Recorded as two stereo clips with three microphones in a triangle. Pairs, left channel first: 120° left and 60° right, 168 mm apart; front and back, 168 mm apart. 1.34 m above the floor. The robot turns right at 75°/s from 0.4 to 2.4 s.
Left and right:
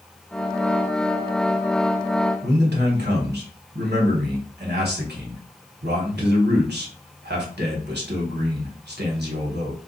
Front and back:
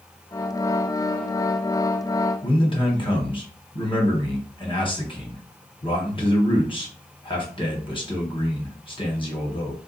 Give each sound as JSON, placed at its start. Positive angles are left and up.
{"t": 2.4, "sound": "a man speaking", "azimuth_deg": -60, "distance_m": 1.3}